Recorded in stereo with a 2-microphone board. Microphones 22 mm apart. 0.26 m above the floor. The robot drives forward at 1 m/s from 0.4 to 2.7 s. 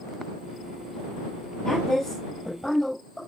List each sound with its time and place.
1.6 s a woman speaking: 20° left (ahead or behind), 8.5 m